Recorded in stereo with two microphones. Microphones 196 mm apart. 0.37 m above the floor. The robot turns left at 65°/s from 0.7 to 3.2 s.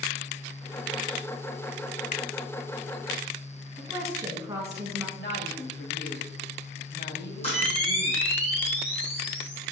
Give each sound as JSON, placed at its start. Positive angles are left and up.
{"t": 3.8, "sound": "a woman speaking", "side_deg": -20, "distance_m": 4.0}
{"t": 5.2, "sound": "a woman speaking", "side_deg": 60, "distance_m": 1.8}
{"t": 7.4, "sound": "a camera shutter", "side_deg": 30, "distance_m": 3.5}